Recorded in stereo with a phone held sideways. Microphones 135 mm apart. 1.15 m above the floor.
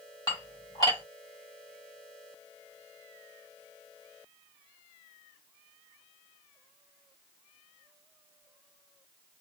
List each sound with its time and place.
0.3 s dishes clattering: 30° left (ahead or behind), 1.8 m